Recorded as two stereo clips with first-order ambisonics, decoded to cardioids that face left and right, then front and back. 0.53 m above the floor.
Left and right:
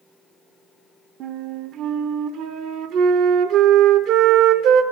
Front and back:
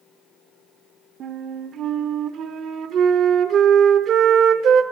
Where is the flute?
125° right, 0.7 m.